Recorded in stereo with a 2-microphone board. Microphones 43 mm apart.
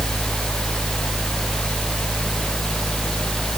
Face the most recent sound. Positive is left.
No sound to turn to.